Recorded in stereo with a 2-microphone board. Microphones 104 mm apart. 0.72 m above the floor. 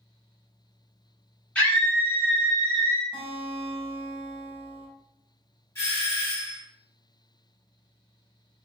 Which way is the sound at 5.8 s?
25° left (ahead or behind).